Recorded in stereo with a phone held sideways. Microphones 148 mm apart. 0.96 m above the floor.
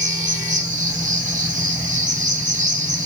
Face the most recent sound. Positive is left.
turn(degrees=-60)  # may be behind; listen again after turning